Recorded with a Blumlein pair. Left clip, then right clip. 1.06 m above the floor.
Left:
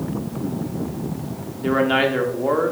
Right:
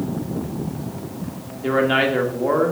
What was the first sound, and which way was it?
A man speaking, straight ahead.